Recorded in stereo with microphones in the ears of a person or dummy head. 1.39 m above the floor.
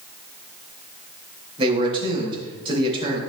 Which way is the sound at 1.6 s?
30° right (ahead or behind).